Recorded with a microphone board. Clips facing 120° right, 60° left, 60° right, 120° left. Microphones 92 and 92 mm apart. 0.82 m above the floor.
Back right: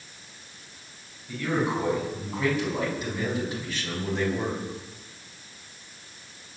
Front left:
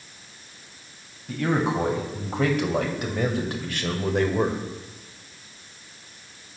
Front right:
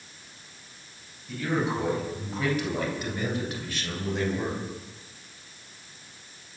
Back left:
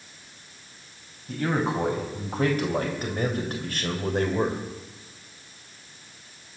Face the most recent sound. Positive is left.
turn(degrees=80)